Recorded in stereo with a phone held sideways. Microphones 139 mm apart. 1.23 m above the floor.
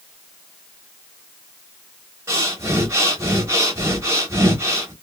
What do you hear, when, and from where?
2.3 s breathing: 20° right (ahead or behind), 0.9 m